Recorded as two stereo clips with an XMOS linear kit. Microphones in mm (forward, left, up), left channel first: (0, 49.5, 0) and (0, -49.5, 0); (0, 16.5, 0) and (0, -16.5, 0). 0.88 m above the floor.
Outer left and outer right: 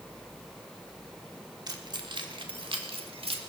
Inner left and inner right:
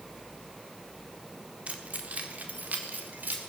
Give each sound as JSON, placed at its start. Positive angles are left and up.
{"t": 1.7, "sound": "keys jangling", "side_deg": -45, "distance_m": 1.5}